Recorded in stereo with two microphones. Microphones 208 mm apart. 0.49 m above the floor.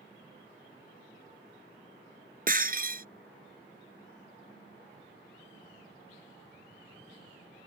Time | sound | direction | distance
2.5 | breaking glass | 45° right (ahead or behind) | ?